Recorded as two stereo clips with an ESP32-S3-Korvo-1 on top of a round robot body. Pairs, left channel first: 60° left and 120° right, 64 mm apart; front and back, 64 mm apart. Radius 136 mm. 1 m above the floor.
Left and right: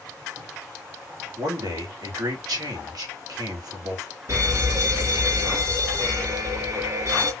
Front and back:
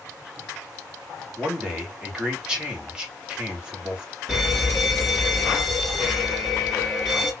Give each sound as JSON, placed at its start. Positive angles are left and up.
{"t": 1.4, "sound": "a man speaking", "azimuth_deg": -105, "distance_m": 3.0}
{"t": 4.3, "sound": "an alarm", "azimuth_deg": -90, "distance_m": 3.0}